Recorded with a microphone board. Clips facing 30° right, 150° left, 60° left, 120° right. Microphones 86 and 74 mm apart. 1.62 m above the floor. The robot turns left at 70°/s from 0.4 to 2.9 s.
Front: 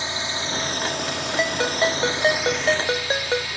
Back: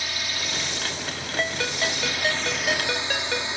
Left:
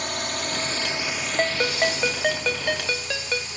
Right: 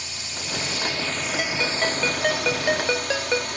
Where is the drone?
30° left; by 3.6 s 145° right.